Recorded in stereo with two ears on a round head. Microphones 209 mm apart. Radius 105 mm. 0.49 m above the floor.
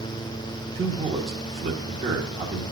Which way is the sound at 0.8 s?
25° right (ahead or behind).